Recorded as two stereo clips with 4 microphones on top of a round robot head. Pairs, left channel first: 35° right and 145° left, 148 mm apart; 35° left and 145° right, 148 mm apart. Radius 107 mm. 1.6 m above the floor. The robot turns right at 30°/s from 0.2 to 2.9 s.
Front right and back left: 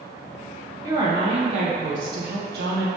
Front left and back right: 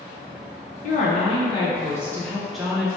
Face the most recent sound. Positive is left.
turn(degrees=135)